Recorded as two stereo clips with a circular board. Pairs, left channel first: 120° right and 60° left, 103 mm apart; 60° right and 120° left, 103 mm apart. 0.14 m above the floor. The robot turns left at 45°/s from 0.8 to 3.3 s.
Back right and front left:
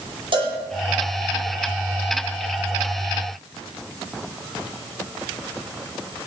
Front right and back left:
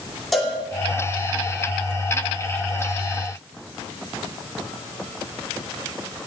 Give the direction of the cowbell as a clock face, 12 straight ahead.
11 o'clock.